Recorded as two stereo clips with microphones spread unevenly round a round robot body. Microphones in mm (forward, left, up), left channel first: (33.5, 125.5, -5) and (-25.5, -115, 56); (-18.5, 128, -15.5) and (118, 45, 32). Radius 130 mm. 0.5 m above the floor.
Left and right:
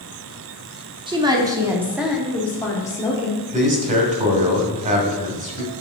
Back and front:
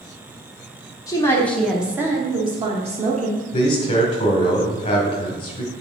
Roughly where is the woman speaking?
Behind.